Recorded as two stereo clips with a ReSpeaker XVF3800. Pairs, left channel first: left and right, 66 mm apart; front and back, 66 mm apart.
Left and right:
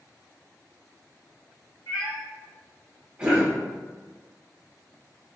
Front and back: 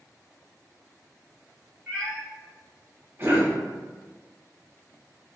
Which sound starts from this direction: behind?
A cough, at 3.2 s.